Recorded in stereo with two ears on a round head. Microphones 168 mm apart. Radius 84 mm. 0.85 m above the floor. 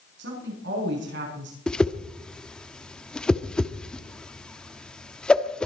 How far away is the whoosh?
About 1.0 m.